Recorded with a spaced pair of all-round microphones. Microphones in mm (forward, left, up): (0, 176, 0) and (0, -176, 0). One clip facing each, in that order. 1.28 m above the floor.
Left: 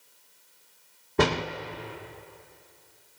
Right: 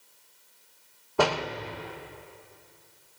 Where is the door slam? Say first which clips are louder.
Left 2 dB; 30° left (ahead or behind), 0.9 m.